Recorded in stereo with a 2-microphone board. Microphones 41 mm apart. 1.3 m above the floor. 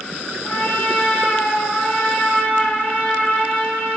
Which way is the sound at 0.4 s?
60° left (ahead or behind).